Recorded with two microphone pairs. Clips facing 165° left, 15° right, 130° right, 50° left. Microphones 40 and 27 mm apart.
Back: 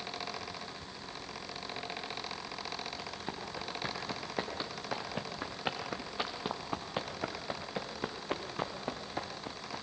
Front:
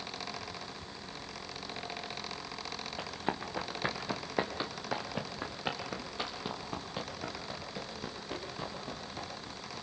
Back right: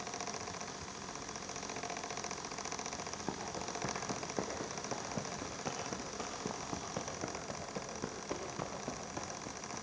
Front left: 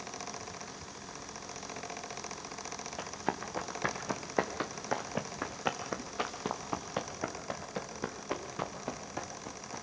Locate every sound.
3.0 s running footsteps: 35° left, 3 m; by 9.8 s 120° left, 4.5 m